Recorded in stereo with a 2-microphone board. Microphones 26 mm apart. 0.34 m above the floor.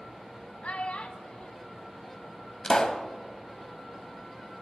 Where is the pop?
30° left (ahead or behind), 1.0 m.